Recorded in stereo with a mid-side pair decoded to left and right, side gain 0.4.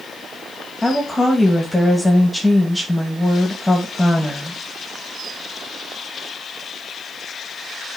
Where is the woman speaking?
Straight ahead, 2.0 m.